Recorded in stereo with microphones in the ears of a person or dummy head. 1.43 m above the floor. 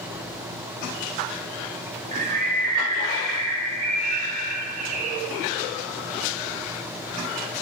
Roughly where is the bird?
Right.